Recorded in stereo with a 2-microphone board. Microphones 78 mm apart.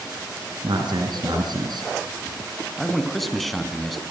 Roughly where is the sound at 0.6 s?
Right.